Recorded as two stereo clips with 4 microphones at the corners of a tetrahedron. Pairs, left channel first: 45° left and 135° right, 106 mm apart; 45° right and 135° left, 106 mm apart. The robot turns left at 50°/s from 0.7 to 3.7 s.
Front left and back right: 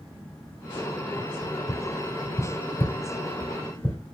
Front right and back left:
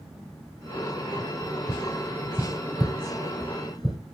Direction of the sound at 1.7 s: 80° left.